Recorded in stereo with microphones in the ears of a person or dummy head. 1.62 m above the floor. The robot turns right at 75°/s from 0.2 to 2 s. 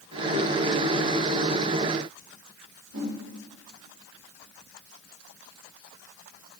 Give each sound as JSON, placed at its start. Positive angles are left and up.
{"t": 2.9, "sound": "a whoosh", "side_deg": -70, "distance_m": 3.5}